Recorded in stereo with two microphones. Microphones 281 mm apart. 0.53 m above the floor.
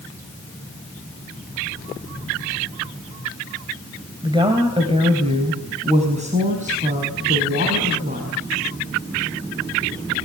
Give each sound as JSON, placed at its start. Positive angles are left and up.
{"t": 4.2, "sound": "a woman speaking", "side_deg": -15, "distance_m": 3.0}